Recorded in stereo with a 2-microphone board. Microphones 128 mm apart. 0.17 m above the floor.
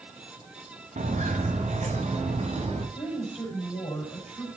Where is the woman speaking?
55° left (ahead or behind), 5.5 m.